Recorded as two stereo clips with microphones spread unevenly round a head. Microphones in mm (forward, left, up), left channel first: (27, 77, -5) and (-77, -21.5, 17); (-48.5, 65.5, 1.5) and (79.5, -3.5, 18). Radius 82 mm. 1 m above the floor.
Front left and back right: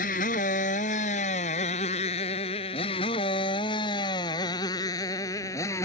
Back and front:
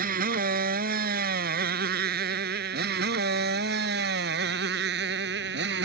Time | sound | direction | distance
0.0 | a motorcycle | 5° right | ?